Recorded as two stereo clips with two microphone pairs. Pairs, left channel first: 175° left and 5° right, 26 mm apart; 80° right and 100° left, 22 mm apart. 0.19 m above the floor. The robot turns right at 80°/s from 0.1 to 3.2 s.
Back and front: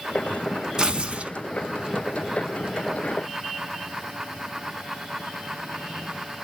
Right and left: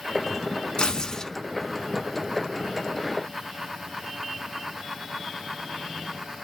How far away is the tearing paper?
About 0.7 m.